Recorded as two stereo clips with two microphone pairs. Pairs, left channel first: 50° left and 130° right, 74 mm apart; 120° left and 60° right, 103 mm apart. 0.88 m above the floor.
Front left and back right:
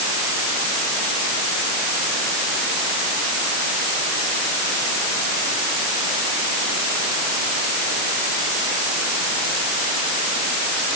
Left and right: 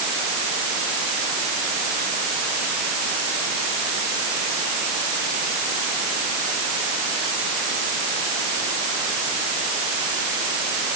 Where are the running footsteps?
No running footsteps in this recording.